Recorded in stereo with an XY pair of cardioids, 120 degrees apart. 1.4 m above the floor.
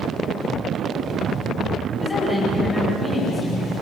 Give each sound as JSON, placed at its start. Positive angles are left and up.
{"t": 1.9, "sound": "a woman speaking", "azimuth_deg": 15, "distance_m": 8.5}